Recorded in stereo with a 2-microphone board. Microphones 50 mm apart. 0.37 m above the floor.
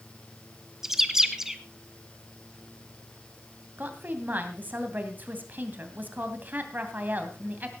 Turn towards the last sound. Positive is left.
turn(degrees=-40)  # may be behind; listen again after turning